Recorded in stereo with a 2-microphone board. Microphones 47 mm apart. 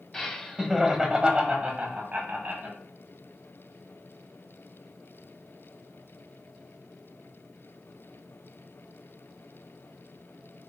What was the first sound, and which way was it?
Laughter, 10° left (ahead or behind).